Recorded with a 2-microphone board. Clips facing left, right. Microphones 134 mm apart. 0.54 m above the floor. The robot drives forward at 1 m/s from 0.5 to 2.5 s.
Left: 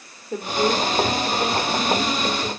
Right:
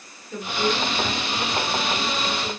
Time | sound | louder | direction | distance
0.3 | a woman speaking | left 3 dB | 50° left (ahead or behind) | 1.6 m